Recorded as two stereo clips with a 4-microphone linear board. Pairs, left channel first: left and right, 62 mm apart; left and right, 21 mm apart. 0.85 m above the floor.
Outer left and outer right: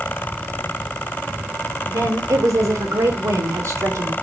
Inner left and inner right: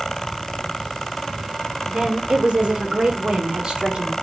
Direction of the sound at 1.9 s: 65° right (ahead or behind).